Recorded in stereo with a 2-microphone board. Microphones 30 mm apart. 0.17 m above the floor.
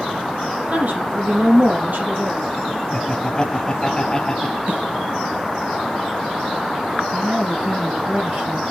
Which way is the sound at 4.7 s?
55° right (ahead or behind).